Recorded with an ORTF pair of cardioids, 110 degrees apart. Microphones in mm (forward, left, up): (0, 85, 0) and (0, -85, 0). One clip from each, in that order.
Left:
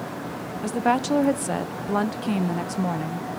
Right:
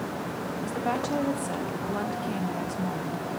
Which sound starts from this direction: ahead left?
A woman speaking, at 0.6 s.